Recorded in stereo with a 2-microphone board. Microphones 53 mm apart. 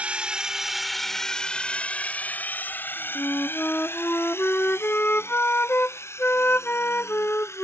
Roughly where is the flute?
Left.